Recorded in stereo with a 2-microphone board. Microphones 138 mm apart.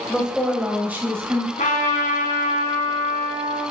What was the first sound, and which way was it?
A woman speaking, 5° left (ahead or behind).